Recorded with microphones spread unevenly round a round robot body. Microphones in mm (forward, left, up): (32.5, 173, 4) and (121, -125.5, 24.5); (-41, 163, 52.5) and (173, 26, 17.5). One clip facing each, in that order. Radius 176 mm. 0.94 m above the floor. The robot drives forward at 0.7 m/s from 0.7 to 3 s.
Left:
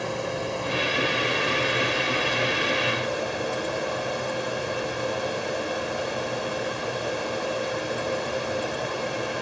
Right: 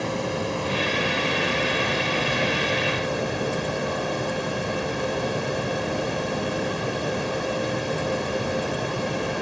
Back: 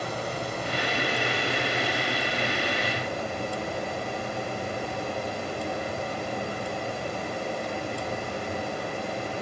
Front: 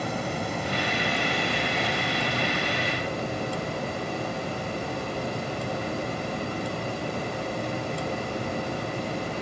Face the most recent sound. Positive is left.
turn(degrees=-100)